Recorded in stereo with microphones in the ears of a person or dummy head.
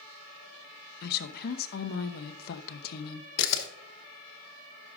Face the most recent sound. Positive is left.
turn(degrees=60)  # may be behind; listen again after turning